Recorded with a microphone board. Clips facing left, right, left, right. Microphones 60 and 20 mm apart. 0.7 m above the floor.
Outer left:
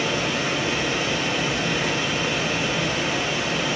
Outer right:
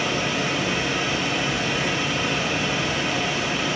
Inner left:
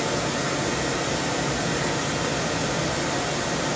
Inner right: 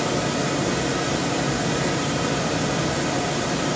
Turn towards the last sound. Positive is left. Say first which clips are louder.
# even, inner right 2 dB
turn(degrees=0)  # may be behind; listen again after turning